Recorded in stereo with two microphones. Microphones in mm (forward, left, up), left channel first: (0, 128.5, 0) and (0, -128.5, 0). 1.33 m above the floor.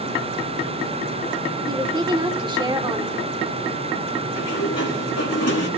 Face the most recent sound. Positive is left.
turn(degrees=75)  # may be behind; listen again after turning